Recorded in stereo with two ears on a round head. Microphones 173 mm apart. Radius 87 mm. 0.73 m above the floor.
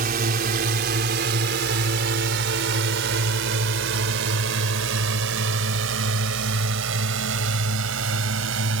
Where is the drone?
45° right (ahead or behind); by 8.8 s 75° right (ahead or behind).